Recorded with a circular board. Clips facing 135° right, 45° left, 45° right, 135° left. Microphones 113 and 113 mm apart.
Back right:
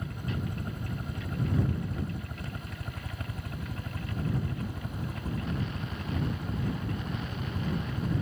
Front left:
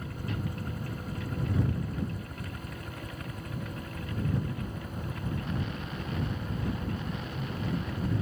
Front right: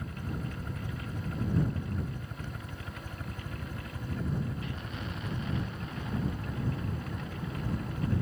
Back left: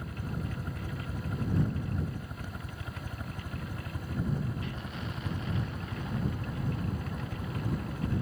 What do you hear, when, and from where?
0.0 s a helicopter: 165° right; by 8.2 s 155° right